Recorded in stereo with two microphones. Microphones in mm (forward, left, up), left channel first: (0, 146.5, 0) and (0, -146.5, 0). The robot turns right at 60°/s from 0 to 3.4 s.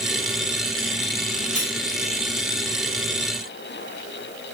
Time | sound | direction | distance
1.6 | cutlery clinking | 30° right (ahead or behind) | 0.7 m